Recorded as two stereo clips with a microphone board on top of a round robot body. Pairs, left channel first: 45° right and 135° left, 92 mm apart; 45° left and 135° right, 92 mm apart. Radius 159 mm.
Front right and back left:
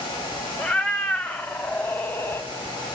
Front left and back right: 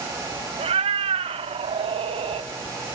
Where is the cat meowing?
125° right, 1.8 m; by 2.5 s 110° right, 0.8 m.